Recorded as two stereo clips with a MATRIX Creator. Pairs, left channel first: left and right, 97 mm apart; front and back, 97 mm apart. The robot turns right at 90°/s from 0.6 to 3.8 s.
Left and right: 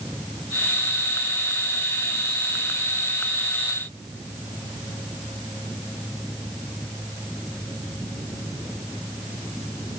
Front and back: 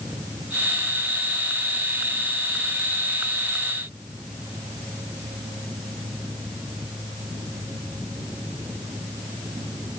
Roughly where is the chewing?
I don't hear chewing.